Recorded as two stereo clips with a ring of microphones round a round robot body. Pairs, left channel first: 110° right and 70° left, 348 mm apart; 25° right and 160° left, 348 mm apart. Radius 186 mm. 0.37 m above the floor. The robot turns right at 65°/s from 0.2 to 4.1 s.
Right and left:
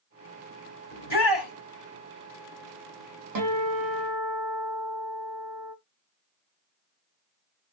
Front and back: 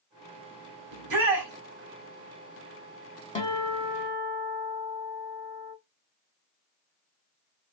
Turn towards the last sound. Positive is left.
turn(degrees=95)